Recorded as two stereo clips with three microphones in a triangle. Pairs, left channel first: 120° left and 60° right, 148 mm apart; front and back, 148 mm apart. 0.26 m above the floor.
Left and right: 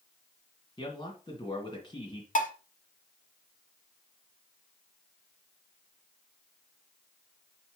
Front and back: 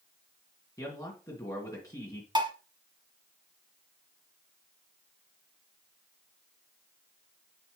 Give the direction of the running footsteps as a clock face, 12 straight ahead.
I don't hear running footsteps.